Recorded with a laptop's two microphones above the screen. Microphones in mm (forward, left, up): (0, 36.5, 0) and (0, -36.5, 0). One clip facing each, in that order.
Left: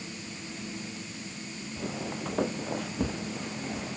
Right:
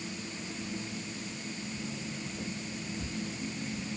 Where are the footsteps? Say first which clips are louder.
Left 4 dB; 70° left (ahead or behind).